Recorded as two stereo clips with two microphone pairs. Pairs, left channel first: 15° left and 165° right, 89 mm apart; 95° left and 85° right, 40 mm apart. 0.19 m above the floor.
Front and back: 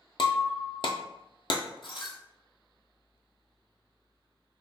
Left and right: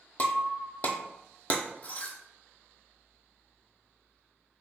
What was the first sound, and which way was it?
Breaking glass, 40° left.